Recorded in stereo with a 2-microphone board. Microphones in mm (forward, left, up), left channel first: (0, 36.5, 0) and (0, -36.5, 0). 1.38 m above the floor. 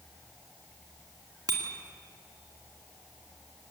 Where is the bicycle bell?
65° right (ahead or behind), 2.5 m.